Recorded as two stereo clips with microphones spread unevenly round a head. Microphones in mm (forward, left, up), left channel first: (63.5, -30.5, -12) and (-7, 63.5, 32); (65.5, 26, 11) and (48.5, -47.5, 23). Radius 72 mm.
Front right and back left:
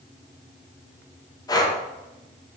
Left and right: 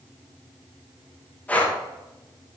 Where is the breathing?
5° left, 2 m.